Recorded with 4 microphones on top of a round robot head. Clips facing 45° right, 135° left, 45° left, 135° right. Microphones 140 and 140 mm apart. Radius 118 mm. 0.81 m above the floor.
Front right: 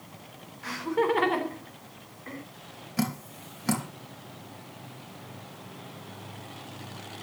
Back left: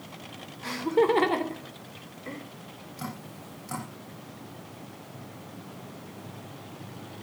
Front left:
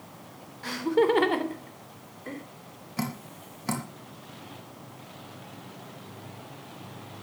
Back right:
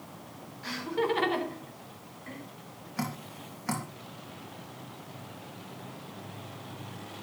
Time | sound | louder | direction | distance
0.6 | laughter | back left 3 dB, front left 7 dB | 75° left | 3.5 m
3.0 | dripping | front right 9 dB, front left 2 dB | 25° right | 3 m